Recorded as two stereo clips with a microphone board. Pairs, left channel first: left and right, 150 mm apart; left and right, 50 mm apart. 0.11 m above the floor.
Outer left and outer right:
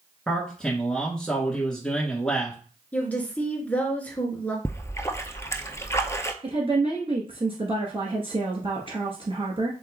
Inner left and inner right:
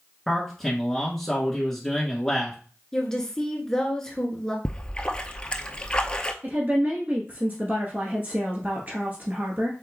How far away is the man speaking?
About 1.2 m.